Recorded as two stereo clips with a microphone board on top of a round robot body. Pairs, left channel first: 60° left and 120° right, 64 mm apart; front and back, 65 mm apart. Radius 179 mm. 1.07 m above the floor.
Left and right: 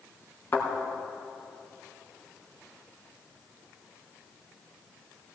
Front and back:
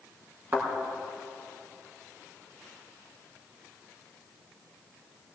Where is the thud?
125° left, 3 m.